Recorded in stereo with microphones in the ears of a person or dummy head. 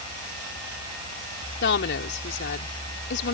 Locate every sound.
1.6 s a woman speaking: 70° left (ahead or behind)